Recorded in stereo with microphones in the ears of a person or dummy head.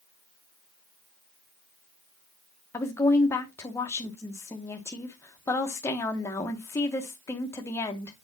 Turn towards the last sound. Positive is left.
turn(degrees=15)  # may be behind; listen again after turning